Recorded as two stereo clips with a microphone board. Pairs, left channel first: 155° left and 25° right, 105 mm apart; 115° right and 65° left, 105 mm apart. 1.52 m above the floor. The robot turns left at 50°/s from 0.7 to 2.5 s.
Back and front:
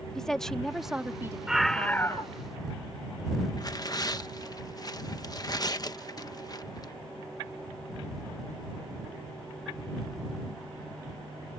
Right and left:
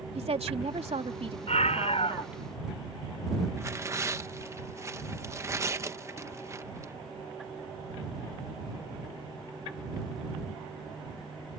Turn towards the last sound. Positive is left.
turn(degrees=120)